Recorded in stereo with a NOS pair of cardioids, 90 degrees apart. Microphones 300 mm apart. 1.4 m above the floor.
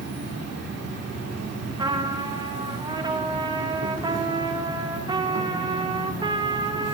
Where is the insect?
55° right, 1.7 m.